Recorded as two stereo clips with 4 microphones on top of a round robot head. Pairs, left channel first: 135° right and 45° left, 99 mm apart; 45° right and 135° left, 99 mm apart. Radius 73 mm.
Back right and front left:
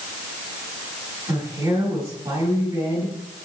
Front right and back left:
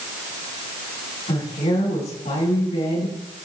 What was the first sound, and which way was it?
A woman speaking, 20° right.